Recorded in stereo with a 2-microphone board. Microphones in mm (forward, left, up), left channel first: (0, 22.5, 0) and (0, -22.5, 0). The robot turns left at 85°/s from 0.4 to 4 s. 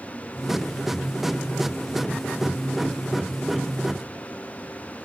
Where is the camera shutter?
No camera shutter in this recording.